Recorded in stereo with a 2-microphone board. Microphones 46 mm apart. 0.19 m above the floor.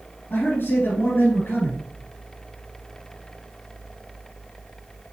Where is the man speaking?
55° left (ahead or behind), 4 m.